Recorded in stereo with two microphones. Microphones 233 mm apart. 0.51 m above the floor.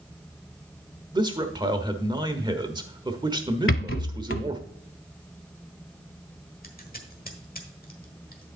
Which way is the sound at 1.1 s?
20° right (ahead or behind).